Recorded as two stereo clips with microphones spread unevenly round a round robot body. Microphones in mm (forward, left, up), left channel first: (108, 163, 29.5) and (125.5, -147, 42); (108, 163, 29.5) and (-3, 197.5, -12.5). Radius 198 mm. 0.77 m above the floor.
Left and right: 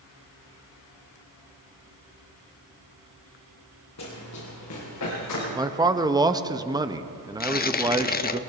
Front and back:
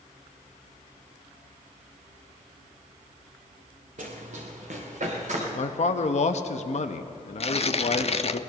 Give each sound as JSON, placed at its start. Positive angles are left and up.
{"t": 4.0, "sound": "running footsteps", "azimuth_deg": 150, "distance_m": 3.0}
{"t": 5.5, "sound": "a man speaking", "azimuth_deg": -10, "distance_m": 0.8}
{"t": 7.4, "sound": "tearing paper", "azimuth_deg": 30, "distance_m": 0.7}